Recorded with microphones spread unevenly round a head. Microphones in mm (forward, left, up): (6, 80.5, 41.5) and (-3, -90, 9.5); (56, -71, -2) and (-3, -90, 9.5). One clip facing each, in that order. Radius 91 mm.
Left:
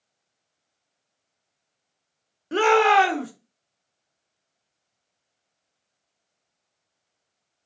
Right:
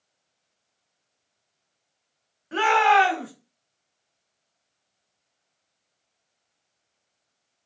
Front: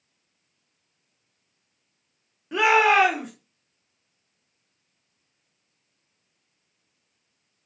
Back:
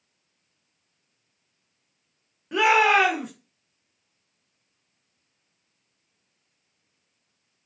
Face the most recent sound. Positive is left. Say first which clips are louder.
# left 2 dB, even
turn(degrees=95)